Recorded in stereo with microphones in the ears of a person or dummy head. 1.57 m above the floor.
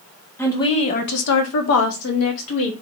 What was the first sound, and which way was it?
A woman speaking, 5° left (ahead or behind).